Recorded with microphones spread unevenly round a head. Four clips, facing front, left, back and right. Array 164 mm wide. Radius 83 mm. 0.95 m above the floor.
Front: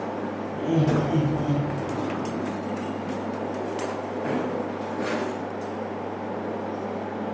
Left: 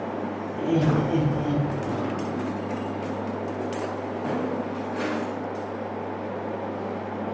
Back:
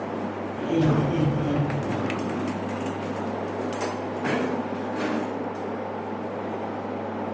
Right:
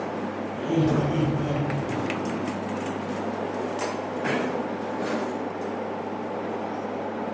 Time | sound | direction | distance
0.5 | laughter | 75° left | 4.5 m